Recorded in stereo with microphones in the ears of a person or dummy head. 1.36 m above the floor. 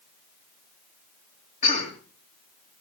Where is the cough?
40° left (ahead or behind), 3 m.